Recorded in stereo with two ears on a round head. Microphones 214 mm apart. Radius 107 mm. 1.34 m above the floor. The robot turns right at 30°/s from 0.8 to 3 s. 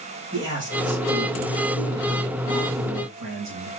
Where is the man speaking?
160° right, 2.5 m; by 3.7 s 95° right, 2.5 m.